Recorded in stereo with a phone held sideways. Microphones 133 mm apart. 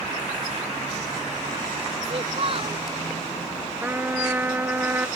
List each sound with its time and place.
2.0 s a child speaking: 45° right (ahead or behind)
3.8 s a trumpet: 15° right (ahead or behind)